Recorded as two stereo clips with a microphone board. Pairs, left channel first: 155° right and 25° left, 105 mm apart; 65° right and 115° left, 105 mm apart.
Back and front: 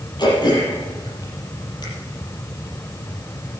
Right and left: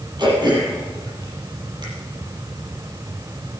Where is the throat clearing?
160° left, 7.5 m.